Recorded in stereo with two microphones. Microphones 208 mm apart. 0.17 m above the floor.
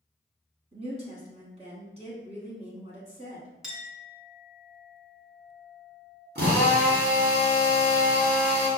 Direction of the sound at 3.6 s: Centre (ahead or behind).